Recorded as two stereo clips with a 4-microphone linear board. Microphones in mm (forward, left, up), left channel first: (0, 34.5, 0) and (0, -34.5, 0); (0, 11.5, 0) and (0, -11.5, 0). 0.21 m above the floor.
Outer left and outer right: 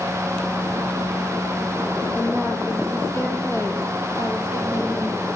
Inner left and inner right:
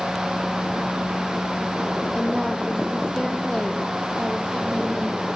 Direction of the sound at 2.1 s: 30° left (ahead or behind).